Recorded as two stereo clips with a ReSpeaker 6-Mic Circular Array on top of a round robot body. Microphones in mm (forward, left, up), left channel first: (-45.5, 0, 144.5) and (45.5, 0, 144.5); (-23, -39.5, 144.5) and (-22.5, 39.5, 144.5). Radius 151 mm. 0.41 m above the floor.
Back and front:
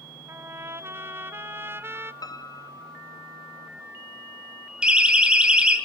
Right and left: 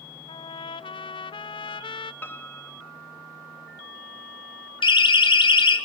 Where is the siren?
80° right, 4 m.